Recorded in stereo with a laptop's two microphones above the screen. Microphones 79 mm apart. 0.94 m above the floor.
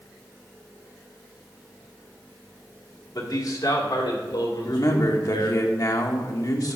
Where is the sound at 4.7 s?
50° left (ahead or behind), 1.1 m.